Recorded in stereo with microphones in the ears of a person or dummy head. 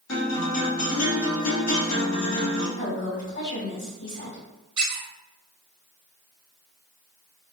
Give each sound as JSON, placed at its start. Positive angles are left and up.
{"t": 0.1, "sound": "a guitar", "side_deg": 90, "distance_m": 1.3}
{"t": 2.8, "sound": "a woman speaking", "side_deg": 65, "distance_m": 1.8}
{"t": 4.8, "sound": "a squeak", "side_deg": -25, "distance_m": 1.2}